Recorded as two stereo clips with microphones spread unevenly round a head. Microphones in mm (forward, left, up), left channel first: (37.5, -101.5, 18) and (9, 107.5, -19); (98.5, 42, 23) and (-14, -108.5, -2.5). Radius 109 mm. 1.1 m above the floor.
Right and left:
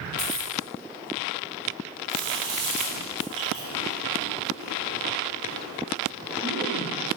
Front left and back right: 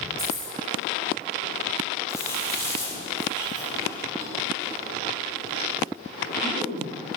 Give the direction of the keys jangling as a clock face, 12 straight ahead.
7 o'clock.